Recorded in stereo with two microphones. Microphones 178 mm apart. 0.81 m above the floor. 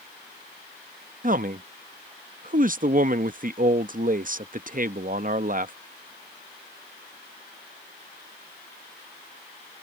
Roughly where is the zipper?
No zipper in this recording.